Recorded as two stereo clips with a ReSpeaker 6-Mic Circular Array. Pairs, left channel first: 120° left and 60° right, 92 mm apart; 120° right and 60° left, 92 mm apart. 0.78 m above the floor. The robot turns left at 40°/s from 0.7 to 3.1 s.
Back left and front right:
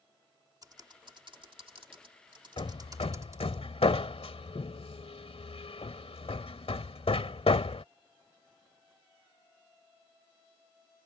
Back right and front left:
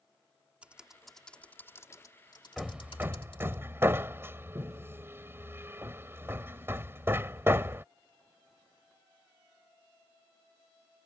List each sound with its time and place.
0.6 s typing on a keyboard: 15° right; by 3.6 s 115° right
2.6 s hammering: 145° left; by 7.8 s 125° left